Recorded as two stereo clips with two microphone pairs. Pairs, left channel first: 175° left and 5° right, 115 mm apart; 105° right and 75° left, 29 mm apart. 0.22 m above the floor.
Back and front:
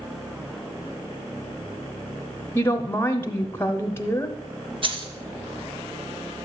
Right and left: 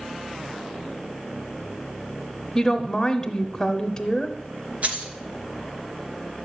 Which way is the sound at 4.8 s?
35° left.